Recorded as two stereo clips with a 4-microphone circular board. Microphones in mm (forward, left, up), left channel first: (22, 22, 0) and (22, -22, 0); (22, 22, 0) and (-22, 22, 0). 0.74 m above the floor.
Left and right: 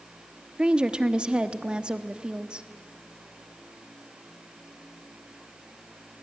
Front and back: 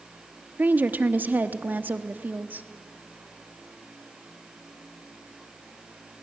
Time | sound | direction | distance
0.6 | a woman speaking | 150° right | 1.0 m